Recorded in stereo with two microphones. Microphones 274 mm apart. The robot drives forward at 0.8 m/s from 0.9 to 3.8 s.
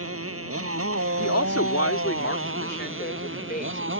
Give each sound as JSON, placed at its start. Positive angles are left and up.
{"t": 0.0, "sound": "a motorcycle", "side_deg": -60}
{"t": 1.2, "sound": "a woman speaking", "side_deg": 75}